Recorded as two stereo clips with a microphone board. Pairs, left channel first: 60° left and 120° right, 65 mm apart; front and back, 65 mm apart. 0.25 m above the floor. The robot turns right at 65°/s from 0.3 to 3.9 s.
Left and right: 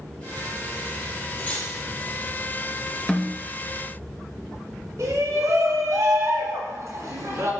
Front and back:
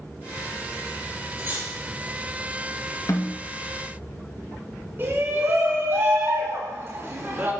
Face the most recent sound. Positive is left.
turn(degrees=-135)